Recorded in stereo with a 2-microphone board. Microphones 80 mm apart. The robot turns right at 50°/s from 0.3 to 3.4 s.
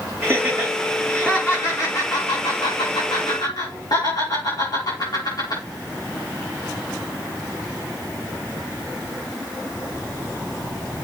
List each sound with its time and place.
0.2 s laughter: 30° right (ahead or behind), 6.5 m; by 5.6 s 55° left (ahead or behind), 6.5 m